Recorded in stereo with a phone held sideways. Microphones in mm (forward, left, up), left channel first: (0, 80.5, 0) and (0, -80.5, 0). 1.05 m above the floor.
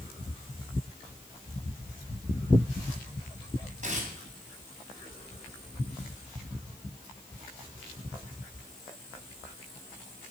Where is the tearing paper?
50° right (ahead or behind), 3 m.